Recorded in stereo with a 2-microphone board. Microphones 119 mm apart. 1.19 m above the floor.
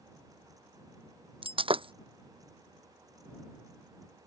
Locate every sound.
1.4 s breaking glass: 50° right (ahead or behind)